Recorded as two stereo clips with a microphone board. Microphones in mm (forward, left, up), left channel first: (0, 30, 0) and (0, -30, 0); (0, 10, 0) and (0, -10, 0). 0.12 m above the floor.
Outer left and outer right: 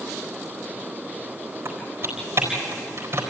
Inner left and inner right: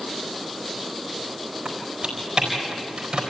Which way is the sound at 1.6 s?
45° right (ahead or behind).